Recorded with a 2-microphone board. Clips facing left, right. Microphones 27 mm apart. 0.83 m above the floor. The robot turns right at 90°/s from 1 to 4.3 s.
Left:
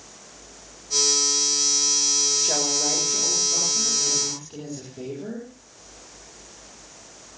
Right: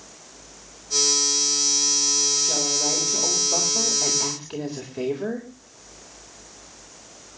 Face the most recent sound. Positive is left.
turn(degrees=-50)